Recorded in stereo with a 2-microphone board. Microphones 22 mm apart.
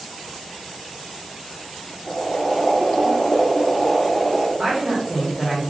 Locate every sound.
2.1 s boiling: 45° left (ahead or behind), 1.6 m
4.6 s a man speaking: 20° right (ahead or behind), 1.4 m